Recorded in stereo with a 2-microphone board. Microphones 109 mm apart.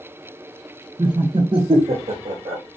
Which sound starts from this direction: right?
Laughter, at 1.0 s.